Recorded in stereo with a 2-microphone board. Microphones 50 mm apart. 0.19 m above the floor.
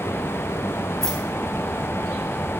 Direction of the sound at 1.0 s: 10° left (ahead or behind).